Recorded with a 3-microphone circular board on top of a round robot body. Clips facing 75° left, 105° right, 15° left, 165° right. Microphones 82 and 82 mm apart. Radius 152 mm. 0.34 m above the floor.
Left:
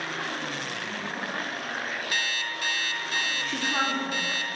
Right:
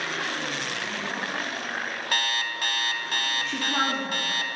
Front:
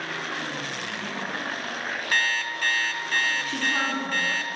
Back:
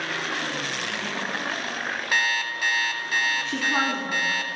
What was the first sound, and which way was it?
An alarm clock, 85° right.